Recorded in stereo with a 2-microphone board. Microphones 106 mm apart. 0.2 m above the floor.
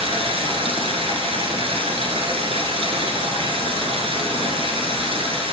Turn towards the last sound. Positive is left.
turn(degrees=-65)  # may be behind; listen again after turning